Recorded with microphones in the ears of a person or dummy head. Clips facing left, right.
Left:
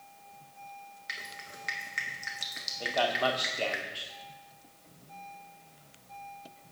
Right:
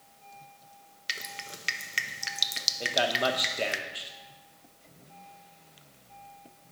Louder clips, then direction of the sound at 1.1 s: Right 8 dB; 40° right (ahead or behind).